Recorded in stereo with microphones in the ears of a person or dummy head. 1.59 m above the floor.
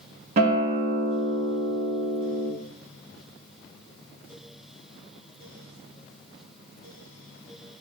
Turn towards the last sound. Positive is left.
turn(degrees=-40)  # may be behind; listen again after turning